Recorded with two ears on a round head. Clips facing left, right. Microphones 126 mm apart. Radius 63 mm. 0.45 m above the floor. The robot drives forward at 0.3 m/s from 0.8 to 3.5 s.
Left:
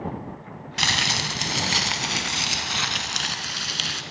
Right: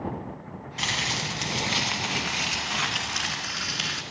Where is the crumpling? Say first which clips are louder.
Left 4 dB; 75° left (ahead or behind), 0.8 m; by 4.0 s 35° left (ahead or behind), 1.3 m.